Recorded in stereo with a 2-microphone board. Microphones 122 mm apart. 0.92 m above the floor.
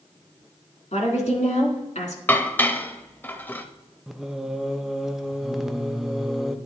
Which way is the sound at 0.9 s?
75° left (ahead or behind).